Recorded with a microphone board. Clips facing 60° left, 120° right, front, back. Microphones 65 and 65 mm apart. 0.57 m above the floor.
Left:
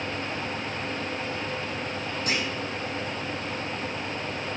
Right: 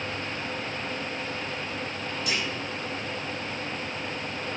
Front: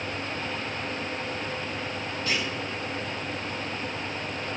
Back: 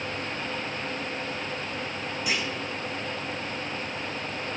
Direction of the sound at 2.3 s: 105° left.